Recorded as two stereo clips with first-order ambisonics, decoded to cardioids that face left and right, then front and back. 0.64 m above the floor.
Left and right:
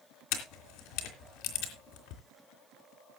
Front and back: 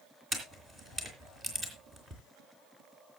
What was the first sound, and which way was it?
A camera shutter, 105° left.